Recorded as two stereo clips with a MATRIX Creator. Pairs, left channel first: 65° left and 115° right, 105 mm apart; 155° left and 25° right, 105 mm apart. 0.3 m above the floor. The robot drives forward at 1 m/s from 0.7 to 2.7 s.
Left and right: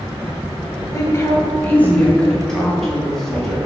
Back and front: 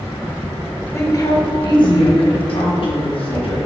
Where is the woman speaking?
110° left, 1.6 m; by 3.6 s 155° left, 2.5 m.